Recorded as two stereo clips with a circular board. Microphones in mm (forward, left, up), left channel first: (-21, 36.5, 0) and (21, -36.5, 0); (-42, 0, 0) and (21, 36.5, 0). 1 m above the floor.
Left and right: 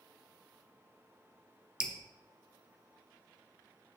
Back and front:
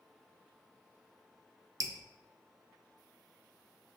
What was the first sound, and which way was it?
Dripping, 15° left.